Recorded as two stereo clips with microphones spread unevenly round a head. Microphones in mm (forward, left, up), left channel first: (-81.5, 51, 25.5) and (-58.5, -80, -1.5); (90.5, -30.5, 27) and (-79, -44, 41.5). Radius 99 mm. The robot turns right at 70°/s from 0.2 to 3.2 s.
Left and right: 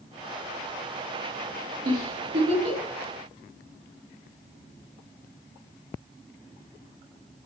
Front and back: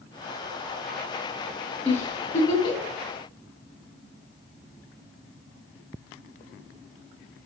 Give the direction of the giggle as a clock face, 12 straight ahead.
3 o'clock.